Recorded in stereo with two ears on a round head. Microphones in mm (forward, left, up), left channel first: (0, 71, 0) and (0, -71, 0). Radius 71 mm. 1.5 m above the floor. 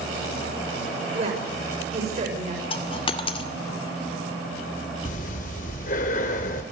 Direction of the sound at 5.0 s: 55° left (ahead or behind).